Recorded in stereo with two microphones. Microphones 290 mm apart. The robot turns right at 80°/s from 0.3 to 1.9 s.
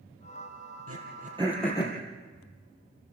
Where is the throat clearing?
60° right (ahead or behind), 4.5 m; by 2.0 s 25° left (ahead or behind), 4.5 m.